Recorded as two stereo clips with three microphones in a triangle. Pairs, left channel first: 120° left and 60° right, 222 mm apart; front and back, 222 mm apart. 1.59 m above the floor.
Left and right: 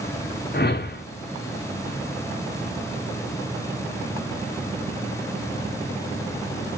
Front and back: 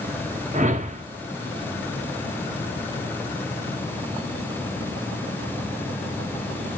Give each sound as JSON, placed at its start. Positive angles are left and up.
{"t": 0.5, "sound": "a whoosh", "azimuth_deg": 135, "distance_m": 0.6}